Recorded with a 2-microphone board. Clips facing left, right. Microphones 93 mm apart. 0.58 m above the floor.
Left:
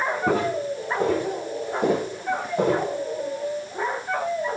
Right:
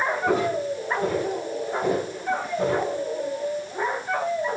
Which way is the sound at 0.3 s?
75° left (ahead or behind).